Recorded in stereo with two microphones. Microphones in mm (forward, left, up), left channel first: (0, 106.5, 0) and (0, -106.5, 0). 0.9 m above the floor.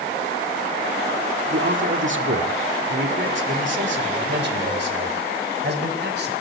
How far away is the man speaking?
About 1.8 m.